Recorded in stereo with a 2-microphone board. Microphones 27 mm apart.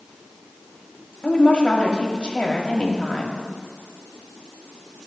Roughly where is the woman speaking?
Left.